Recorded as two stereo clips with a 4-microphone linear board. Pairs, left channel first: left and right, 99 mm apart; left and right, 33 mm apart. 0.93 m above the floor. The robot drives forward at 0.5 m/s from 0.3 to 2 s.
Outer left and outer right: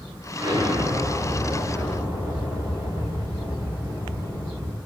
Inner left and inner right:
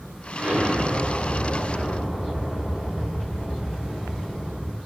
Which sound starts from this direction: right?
An explosion, at 0.4 s.